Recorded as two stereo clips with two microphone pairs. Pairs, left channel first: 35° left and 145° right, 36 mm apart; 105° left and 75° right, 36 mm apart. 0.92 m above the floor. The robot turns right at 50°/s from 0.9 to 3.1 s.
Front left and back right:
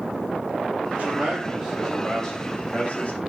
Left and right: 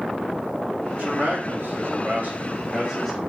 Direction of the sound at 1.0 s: 100° right.